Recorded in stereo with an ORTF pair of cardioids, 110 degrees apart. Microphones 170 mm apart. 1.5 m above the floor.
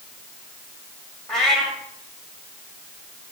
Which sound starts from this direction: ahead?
A cat meowing, at 1.3 s.